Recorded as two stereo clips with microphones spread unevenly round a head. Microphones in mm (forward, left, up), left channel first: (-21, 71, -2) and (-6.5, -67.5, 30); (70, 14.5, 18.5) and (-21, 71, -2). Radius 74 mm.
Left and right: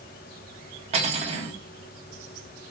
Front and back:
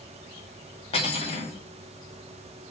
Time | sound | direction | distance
0.9 | cutlery clinking | 55° right | 1.3 m